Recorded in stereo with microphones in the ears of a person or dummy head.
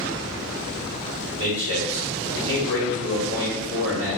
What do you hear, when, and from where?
1.4 s a man speaking: 65° right (ahead or behind), 2.0 m